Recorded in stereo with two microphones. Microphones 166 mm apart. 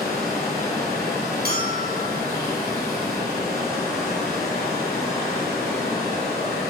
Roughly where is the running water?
Right.